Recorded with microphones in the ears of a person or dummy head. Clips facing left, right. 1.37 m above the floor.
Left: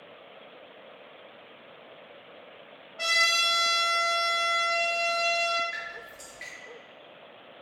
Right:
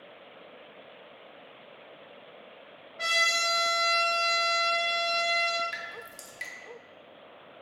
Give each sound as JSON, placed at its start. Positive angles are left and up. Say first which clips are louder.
{"t": 3.0, "sound": "a trumpet", "louder": "even", "side_deg": 65, "distance_m": 1.9}
{"t": 5.7, "sound": "dripping", "louder": "even", "side_deg": -60, "distance_m": 0.6}